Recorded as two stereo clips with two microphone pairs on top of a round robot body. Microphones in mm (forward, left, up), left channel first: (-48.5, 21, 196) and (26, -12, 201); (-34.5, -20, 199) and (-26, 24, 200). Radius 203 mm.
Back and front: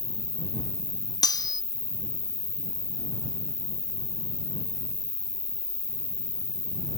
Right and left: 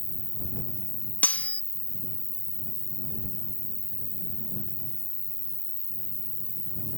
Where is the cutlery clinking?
160° right.